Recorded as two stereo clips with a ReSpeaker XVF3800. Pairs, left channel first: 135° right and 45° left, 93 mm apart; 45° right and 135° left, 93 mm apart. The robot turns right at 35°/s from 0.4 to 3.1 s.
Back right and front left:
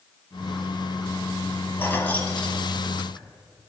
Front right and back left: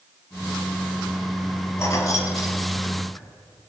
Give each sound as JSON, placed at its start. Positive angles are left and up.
{"t": 1.8, "sound": "keys jangling", "azimuth_deg": -85, "distance_m": 1.1}